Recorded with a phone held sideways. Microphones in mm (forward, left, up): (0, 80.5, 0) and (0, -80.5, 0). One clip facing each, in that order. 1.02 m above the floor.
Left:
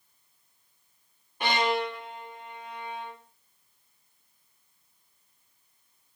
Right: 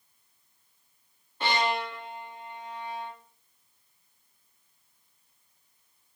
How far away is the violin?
About 1.7 m.